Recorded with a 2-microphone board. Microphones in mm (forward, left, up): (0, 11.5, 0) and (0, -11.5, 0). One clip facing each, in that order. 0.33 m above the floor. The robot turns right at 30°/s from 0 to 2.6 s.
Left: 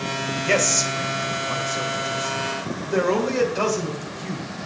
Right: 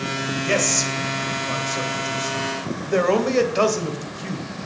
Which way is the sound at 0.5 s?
5° left (ahead or behind).